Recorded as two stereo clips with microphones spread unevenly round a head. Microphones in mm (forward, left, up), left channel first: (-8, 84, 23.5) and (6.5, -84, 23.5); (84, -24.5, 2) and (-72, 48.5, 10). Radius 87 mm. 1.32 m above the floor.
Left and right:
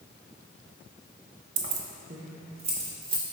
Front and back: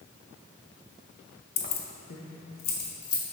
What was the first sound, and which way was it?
Keys jangling, 70° right.